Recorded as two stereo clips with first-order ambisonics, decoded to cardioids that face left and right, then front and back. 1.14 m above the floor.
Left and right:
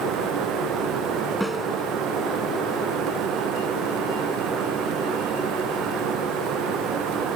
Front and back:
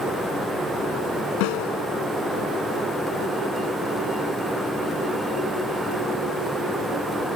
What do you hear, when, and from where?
1.4 s a snare drum: straight ahead